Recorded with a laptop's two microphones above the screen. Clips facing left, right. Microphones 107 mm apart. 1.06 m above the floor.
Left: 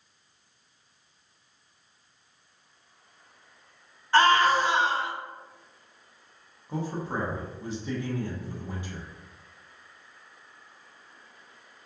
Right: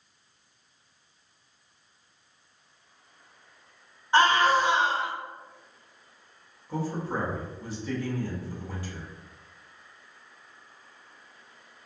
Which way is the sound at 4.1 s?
20° right (ahead or behind).